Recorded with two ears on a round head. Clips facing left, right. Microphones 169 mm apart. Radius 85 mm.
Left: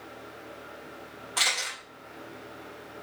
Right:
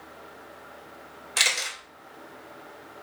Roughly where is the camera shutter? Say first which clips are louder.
Right 1 dB; right.